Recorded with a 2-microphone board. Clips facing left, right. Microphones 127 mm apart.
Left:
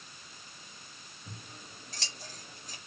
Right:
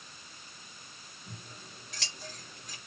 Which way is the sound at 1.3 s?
35° left (ahead or behind).